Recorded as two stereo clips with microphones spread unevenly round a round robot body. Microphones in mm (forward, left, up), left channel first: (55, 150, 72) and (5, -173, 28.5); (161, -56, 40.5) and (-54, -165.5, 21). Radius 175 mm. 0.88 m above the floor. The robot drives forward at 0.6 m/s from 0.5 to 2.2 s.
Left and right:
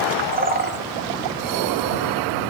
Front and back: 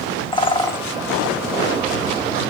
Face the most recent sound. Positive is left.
turn(degrees=-150)